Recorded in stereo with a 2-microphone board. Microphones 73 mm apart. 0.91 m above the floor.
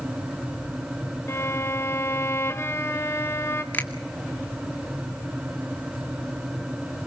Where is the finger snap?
25° left (ahead or behind), 2 m.